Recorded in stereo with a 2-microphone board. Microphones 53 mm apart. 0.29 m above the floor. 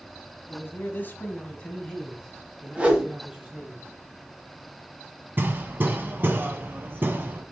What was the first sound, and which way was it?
A man speaking, 55° left (ahead or behind).